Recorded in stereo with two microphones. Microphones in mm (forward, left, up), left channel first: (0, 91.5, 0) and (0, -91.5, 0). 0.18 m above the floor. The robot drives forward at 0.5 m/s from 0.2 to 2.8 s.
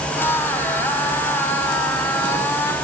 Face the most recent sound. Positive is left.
No sound to turn to.